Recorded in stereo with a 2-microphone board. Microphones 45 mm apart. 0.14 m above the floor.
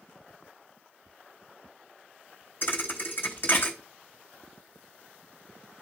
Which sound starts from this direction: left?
A thud, at 2.6 s.